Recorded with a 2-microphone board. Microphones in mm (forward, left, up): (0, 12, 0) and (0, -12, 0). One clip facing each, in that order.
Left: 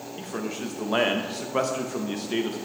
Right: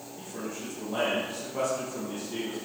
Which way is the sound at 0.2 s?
60° left (ahead or behind).